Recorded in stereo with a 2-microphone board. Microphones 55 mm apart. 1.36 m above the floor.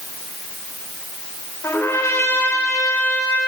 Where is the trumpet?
55° left (ahead or behind), 4.5 m.